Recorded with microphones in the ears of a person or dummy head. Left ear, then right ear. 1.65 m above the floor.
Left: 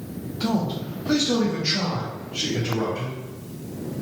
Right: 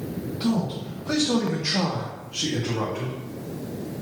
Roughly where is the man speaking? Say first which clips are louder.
Left 2 dB; centre.